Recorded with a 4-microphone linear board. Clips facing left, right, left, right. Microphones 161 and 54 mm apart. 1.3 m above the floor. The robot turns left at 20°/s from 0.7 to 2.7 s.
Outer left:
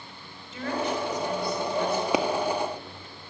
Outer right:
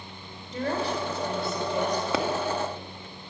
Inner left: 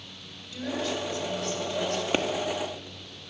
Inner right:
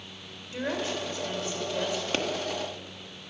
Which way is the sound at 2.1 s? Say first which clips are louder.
Outer left 3 dB, inner left 3 dB; 15° left (ahead or behind).